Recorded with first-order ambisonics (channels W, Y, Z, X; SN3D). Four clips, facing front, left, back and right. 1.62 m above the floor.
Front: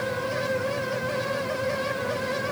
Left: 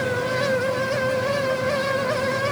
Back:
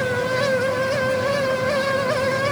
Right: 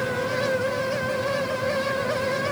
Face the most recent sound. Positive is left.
No sound to turn to.